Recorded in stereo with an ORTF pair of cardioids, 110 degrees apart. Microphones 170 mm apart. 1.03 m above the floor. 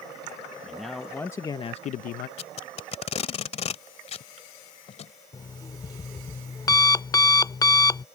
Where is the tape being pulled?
40° left.